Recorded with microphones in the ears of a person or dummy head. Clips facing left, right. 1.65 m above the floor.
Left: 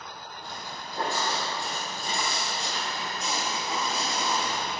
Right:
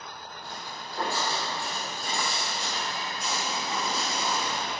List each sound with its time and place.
0.4 s footsteps: 15° left (ahead or behind), 3 m; by 4.7 s 25° left (ahead or behind), 6 m